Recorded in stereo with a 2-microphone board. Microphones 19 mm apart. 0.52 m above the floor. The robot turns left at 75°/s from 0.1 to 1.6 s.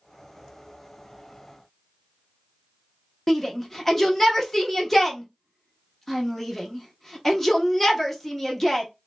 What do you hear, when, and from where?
3.3 s a shout: 15° left (ahead or behind), 0.8 m